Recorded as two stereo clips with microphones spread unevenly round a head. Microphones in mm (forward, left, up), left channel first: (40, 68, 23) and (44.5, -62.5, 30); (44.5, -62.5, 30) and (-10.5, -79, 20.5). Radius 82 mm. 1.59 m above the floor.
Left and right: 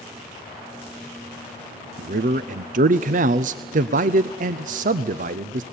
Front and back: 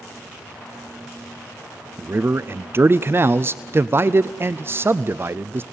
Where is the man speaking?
120° right, 0.5 m.